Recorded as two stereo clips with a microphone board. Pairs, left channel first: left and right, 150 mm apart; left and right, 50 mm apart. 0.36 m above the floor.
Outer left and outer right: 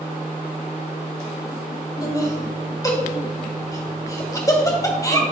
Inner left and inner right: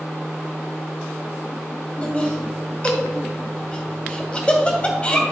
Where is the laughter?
25° left (ahead or behind), 2 m.